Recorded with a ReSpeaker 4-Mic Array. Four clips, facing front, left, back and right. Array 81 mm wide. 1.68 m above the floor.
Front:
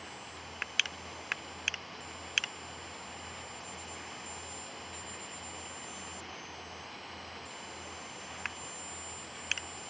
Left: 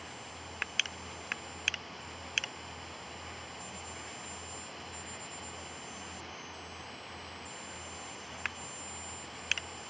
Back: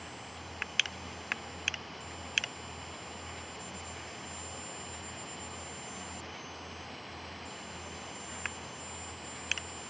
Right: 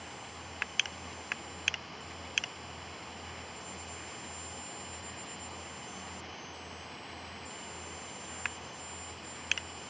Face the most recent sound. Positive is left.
No sound to turn to.